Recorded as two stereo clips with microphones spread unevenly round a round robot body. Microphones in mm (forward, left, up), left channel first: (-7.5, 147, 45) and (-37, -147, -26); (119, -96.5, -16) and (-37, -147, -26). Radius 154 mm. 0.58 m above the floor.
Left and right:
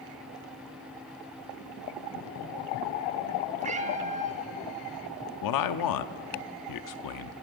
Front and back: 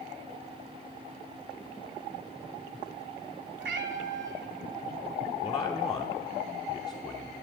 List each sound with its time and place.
3.6 s a cat meowing: 165° right, 1.2 m
5.4 s a man speaking: 90° left, 0.8 m